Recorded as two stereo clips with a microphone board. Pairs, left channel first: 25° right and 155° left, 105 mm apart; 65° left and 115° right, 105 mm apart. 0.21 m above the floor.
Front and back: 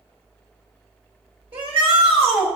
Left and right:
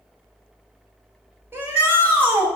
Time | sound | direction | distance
1.5 | a shout | straight behind | 3.5 m